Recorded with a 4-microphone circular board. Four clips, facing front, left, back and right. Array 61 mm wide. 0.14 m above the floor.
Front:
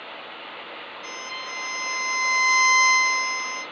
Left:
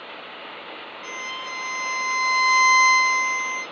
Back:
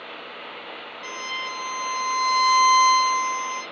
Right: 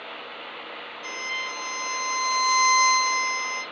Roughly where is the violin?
Behind left.